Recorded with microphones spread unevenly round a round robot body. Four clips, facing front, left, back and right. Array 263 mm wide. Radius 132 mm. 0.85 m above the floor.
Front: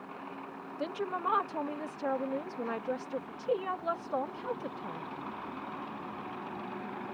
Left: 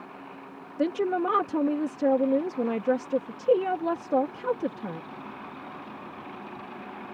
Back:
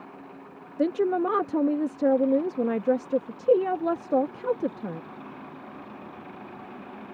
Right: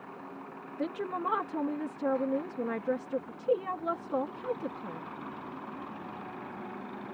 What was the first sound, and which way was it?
A woman speaking, 150° left.